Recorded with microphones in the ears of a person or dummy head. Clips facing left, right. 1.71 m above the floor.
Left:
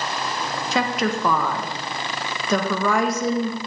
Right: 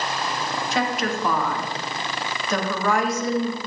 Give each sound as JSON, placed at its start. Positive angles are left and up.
{"t": 0.7, "sound": "a woman speaking", "side_deg": 70, "distance_m": 1.8}